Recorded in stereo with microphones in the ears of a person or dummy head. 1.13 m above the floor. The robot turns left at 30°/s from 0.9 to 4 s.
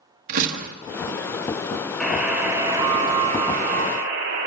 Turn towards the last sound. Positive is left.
turn(degrees=-55)